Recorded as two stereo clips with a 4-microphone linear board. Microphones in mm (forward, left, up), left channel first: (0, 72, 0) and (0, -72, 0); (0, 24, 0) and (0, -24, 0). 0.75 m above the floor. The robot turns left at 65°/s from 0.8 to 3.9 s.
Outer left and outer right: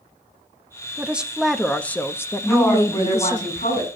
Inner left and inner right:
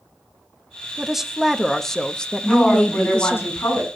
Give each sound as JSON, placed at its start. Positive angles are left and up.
{"t": 1.0, "sound": "a woman speaking", "side_deg": -10, "distance_m": 0.7}
{"t": 2.4, "sound": "a woman speaking", "azimuth_deg": 180, "distance_m": 7.5}